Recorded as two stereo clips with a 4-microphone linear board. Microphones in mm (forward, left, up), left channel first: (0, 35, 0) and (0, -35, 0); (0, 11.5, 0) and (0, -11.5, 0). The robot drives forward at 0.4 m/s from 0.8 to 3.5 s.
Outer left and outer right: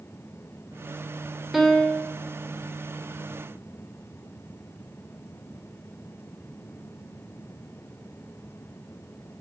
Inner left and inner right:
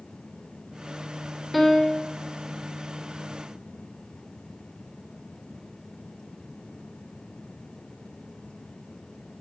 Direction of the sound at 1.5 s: Centre (ahead or behind).